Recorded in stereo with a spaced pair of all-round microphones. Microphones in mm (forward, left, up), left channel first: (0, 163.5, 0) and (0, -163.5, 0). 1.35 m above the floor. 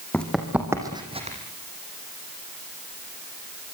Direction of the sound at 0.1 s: 5° left (ahead or behind).